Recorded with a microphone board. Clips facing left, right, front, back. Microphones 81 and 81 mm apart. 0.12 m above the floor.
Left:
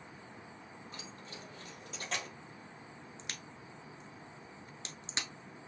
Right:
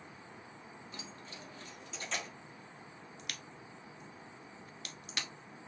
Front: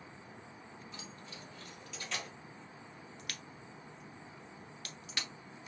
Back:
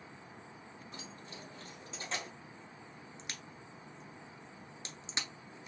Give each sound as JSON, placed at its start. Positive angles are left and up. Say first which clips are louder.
{"t": 0.9, "sound": "keys jangling", "louder": "even, back 1 dB", "azimuth_deg": 135, "distance_m": 3.0}
{"t": 3.2, "sound": "a crack", "louder": "right 1 dB, even", "azimuth_deg": 130, "distance_m": 0.9}